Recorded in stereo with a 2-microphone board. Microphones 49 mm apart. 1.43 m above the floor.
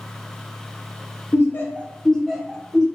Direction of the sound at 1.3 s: 60° left (ahead or behind).